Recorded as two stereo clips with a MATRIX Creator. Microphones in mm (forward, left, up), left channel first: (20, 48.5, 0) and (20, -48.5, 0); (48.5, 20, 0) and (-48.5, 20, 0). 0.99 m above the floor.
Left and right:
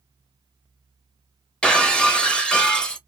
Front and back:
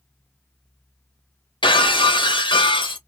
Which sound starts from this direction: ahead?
Breaking glass, at 1.6 s.